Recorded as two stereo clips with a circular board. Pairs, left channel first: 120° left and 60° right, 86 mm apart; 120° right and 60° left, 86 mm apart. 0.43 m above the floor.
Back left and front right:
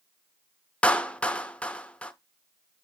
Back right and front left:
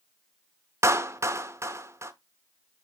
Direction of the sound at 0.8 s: 55° left.